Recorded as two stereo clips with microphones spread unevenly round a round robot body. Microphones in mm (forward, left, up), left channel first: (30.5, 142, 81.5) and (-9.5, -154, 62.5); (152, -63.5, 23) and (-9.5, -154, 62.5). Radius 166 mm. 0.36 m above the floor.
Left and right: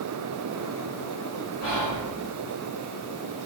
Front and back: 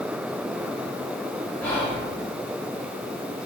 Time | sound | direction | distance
1.6 | whispering | 115° left | 4 m